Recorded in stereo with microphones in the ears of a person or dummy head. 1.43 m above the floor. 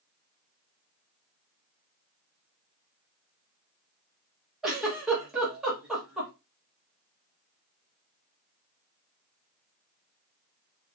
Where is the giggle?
5° right (ahead or behind), 1.3 m.